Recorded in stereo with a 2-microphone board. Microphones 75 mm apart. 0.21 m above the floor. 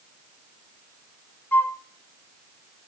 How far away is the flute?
About 0.6 m.